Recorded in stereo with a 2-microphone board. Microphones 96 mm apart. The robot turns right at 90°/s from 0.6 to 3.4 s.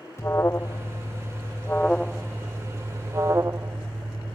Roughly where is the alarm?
Ahead left.